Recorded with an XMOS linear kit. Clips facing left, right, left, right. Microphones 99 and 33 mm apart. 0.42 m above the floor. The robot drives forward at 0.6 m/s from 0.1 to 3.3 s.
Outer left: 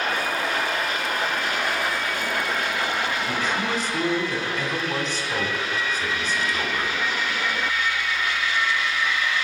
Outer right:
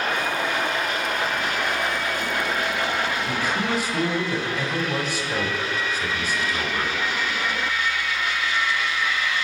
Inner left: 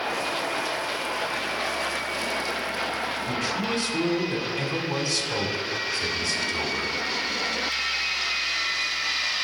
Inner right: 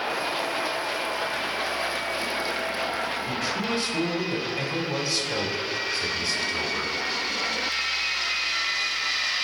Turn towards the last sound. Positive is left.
turn(degrees=-10)  # may be behind; listen again after turning